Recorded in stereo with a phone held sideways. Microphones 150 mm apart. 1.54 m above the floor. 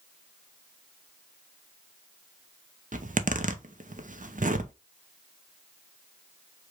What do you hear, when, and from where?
2.9 s a zipper: 65° right (ahead or behind), 0.7 m